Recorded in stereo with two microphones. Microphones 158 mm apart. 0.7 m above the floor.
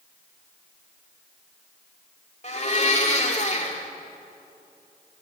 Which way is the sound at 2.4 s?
45° left (ahead or behind).